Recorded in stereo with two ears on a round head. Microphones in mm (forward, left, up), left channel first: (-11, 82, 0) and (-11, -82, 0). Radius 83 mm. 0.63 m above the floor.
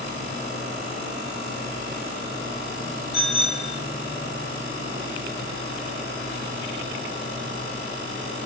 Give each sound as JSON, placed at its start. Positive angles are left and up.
{"t": 3.1, "sound": "a bicycle bell", "side_deg": 65, "distance_m": 2.5}